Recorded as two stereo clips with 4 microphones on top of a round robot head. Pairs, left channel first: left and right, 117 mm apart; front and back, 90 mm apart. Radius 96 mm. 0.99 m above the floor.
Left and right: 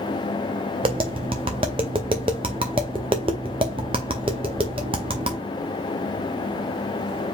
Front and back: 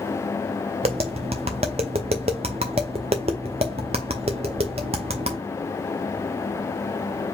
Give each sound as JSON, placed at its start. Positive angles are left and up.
{"t": 0.8, "sound": "tapping", "azimuth_deg": -145, "distance_m": 0.5}